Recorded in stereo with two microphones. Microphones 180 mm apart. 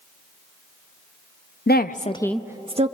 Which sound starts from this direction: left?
A woman speaking, at 1.7 s.